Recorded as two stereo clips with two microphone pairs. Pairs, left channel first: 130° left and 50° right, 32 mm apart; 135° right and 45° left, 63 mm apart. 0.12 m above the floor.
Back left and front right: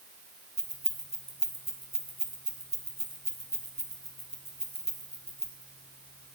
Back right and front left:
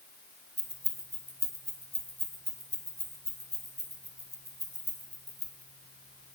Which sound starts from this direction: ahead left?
Keys jangling, at 0.6 s.